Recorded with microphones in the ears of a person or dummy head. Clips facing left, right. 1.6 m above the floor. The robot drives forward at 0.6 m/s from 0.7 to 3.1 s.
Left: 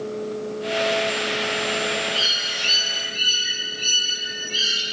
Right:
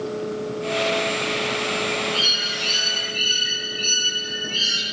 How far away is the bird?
About 4.5 m.